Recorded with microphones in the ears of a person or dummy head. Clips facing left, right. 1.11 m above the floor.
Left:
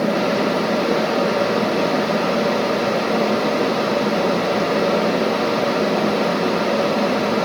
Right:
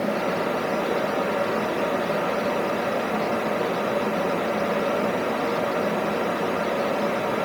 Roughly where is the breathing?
No breathing in this recording.